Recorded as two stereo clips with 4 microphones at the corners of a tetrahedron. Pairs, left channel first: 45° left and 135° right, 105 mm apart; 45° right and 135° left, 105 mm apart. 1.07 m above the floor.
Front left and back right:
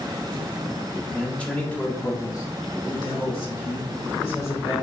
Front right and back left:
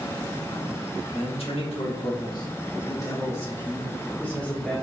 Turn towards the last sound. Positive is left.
turn(degrees=35)